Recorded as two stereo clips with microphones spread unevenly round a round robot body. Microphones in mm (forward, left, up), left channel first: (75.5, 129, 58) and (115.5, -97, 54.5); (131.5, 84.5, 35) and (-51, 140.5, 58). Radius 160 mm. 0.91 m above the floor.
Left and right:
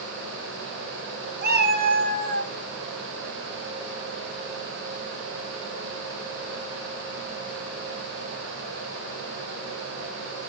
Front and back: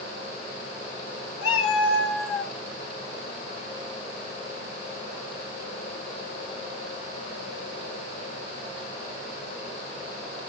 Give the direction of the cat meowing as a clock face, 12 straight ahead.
1 o'clock.